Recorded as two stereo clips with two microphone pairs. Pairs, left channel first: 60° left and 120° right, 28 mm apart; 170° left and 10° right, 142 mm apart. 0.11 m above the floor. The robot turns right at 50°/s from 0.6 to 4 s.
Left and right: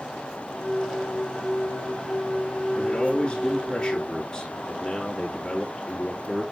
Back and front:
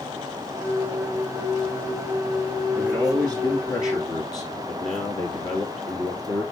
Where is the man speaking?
70° left, 2.0 m; by 6.4 s 130° left, 2.0 m.